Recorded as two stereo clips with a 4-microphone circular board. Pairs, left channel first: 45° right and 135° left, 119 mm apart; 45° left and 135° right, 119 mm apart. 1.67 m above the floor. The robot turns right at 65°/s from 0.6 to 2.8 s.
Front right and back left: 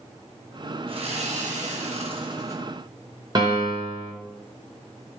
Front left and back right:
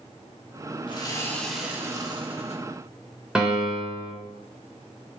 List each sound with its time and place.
0.9 s sawing: 90° left, 1.4 m; by 2.6 s 155° right, 1.4 m
3.4 s a piano: 145° left, 1.7 m